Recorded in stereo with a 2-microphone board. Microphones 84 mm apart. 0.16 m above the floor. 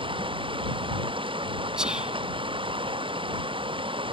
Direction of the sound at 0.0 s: 85° right.